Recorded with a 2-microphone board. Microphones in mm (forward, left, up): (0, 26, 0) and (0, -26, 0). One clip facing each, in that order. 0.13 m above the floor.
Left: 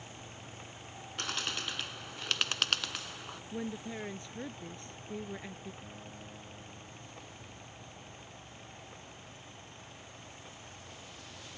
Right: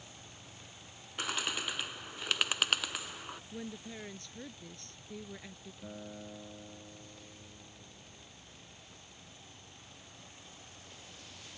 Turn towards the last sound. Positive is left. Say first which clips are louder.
# right 2 dB
turn(degrees=-25)  # may be behind; listen again after turning